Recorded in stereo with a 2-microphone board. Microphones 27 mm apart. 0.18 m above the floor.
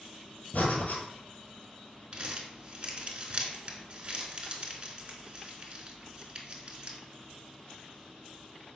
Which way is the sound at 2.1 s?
40° right (ahead or behind).